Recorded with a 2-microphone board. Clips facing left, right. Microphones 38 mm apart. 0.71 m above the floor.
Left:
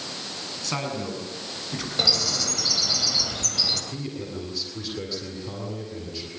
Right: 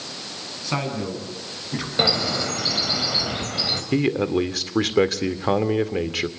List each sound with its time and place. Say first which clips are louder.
0.6 s a man speaking: right 3 dB; 15° right (ahead or behind), 7.5 m
2.0 s a bird: right 4 dB; 25° right (ahead or behind), 3 m
3.9 s a man speaking: right 13 dB; 65° right (ahead or behind), 2 m